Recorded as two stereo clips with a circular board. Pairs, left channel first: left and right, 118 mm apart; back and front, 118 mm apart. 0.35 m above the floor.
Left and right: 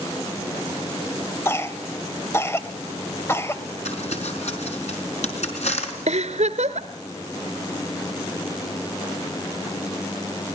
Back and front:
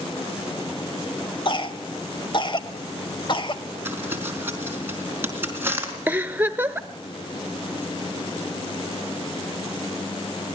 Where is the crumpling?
70° left, 4.5 m.